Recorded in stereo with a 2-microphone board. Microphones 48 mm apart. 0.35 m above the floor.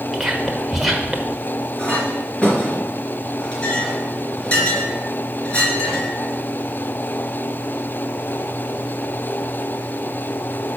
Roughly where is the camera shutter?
I don't hear a camera shutter.